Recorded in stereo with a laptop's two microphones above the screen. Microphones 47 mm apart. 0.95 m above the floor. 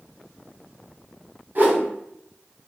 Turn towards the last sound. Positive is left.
turn(degrees=-45)  # may be behind; listen again after turning